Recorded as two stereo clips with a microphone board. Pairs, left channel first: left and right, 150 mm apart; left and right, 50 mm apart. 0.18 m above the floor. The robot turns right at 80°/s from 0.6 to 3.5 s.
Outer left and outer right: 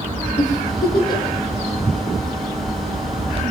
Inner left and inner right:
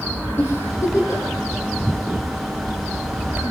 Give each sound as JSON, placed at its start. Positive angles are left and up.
{"t": 0.4, "sound": "a giggle", "side_deg": 55, "distance_m": 8.5}